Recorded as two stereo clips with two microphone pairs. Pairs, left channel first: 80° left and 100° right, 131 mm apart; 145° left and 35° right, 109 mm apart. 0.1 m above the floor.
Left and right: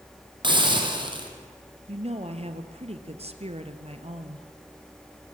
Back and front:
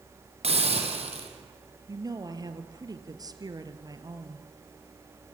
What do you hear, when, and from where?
0.4 s a hiss: 50° right, 4 m
1.9 s a woman speaking: 80° right, 2 m